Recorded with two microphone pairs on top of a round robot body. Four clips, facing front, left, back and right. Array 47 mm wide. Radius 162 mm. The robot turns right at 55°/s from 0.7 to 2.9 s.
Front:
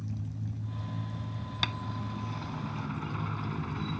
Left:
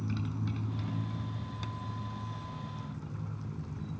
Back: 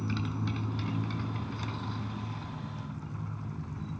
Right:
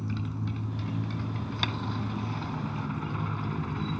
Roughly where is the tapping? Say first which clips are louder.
Right 14 dB, front 5 dB; ahead right.